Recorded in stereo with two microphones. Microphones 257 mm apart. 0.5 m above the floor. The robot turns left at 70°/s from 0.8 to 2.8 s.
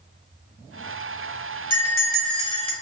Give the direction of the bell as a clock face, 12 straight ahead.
10 o'clock.